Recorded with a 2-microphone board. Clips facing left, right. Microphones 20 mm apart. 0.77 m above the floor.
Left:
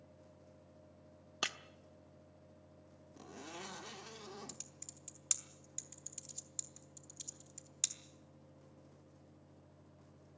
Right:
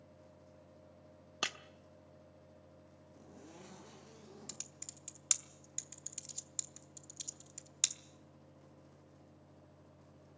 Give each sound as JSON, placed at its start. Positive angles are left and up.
{"t": 1.4, "sound": "breaking glass", "side_deg": -5, "distance_m": 0.7}
{"t": 3.2, "sound": "a zipper", "side_deg": 70, "distance_m": 1.6}
{"t": 4.5, "sound": "typing on a keyboard", "side_deg": -25, "distance_m": 1.0}